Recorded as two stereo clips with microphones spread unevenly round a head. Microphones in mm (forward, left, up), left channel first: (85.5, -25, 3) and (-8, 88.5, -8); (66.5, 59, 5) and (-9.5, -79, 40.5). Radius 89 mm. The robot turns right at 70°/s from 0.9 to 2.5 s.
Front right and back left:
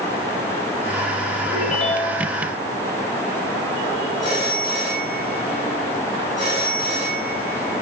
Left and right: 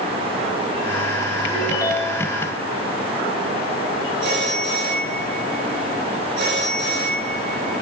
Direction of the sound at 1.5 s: 30° right.